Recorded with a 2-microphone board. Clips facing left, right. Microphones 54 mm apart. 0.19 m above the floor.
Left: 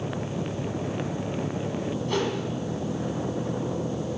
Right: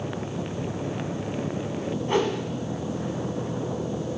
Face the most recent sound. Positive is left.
turn(degrees=-30)  # may be behind; listen again after turning